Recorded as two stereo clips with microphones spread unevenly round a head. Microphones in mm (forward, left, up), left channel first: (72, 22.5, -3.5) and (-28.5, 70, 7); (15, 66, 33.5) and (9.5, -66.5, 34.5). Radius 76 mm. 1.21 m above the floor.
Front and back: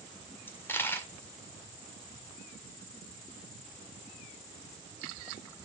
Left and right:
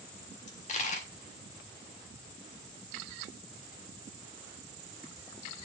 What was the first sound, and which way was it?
A dropped coin, 50° left.